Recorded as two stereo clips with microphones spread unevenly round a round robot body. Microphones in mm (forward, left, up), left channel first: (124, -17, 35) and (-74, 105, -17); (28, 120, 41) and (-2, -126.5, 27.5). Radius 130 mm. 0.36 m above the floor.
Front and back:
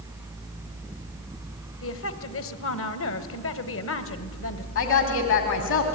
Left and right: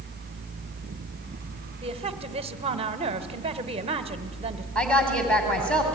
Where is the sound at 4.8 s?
5° right, 2.5 m.